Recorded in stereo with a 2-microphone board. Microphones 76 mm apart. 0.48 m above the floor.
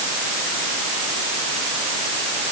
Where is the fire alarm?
I don't hear a fire alarm.